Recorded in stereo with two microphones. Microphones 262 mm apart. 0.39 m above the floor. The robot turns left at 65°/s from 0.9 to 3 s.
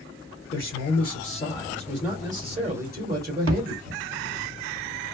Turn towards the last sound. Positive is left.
turn(degrees=-60)  # may be behind; listen again after turning